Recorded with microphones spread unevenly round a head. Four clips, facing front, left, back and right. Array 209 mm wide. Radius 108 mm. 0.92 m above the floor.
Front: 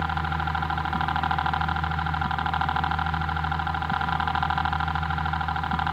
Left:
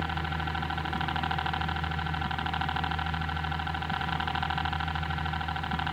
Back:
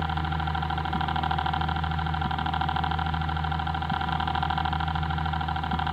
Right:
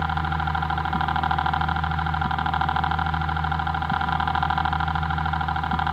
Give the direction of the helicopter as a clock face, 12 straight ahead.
3 o'clock.